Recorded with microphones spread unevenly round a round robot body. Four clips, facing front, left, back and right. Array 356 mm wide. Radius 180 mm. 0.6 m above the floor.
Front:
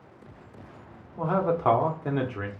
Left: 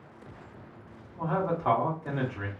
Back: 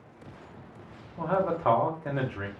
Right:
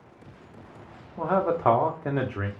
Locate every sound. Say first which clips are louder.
1.2 s a man speaking: right 5 dB, front 2 dB; 70° right, 0.9 m